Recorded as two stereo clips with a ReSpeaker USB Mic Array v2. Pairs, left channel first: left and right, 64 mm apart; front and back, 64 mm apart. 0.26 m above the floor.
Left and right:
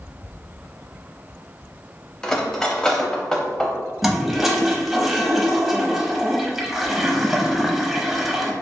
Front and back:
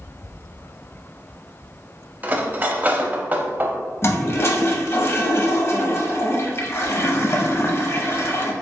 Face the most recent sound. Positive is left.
turn(degrees=-5)